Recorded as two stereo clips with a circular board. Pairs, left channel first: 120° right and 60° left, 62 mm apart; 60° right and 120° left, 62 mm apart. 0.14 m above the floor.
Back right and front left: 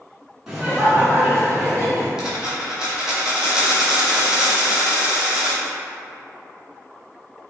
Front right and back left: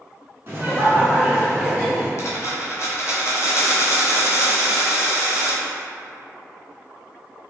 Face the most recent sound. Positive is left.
turn(degrees=-20)